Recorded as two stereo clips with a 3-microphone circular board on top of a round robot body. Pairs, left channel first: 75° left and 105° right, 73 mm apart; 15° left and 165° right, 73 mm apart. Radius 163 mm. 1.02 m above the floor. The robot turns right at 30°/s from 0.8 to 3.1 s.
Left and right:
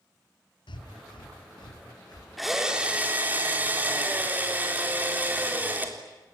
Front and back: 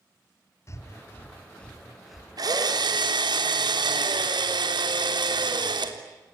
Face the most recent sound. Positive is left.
turn(degrees=-175)